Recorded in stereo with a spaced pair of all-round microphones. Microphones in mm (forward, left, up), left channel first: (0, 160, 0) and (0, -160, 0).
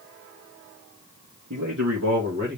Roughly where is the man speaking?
Right.